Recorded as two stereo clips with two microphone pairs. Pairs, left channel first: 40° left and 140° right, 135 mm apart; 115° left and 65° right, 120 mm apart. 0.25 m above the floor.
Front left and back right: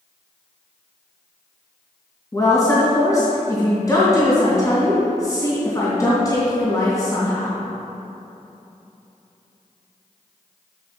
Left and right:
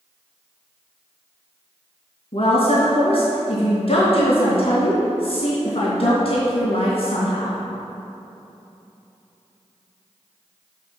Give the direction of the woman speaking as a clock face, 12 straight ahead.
9 o'clock.